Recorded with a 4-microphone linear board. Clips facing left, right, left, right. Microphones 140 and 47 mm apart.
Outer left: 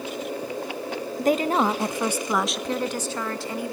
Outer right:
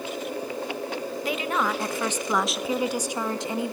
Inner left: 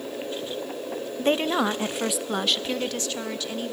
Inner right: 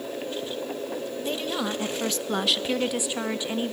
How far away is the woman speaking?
About 0.8 m.